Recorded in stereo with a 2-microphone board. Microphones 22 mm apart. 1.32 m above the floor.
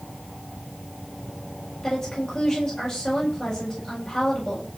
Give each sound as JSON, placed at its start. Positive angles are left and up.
{"t": 1.8, "sound": "a woman speaking", "side_deg": 35, "distance_m": 9.0}